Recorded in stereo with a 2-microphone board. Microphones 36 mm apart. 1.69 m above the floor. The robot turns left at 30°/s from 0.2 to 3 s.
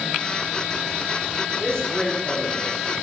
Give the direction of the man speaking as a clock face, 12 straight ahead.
11 o'clock.